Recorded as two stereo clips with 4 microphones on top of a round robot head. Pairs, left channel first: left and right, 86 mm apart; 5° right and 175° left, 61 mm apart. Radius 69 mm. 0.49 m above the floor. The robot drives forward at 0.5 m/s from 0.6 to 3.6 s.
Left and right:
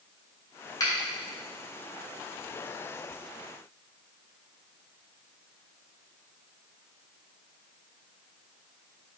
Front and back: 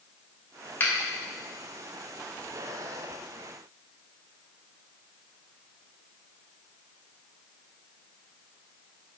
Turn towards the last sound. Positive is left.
turn(degrees=95)